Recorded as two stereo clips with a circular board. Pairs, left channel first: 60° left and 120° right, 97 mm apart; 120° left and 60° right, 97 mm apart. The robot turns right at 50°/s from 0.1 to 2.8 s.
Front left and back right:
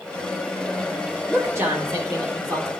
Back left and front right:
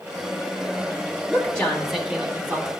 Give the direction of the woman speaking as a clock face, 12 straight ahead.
6 o'clock.